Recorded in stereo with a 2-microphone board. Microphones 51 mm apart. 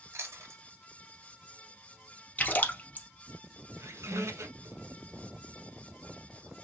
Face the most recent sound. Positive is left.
turn(degrees=-75)  # may be behind; listen again after turning